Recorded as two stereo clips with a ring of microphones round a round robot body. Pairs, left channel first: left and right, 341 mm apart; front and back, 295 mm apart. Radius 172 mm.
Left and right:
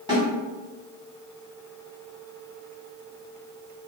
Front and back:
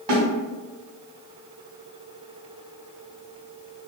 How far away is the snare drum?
About 1.6 m.